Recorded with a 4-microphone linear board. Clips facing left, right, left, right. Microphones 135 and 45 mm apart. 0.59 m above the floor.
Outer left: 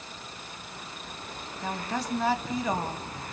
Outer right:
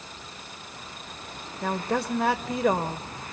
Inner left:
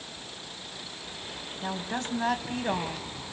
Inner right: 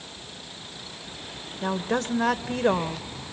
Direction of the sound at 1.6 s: 60° right (ahead or behind).